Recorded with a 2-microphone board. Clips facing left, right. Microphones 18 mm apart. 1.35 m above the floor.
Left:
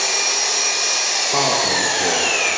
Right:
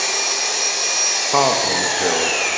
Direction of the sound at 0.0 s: 10° left (ahead or behind).